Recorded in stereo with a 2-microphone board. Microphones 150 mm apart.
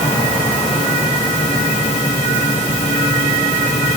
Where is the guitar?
No guitar in this recording.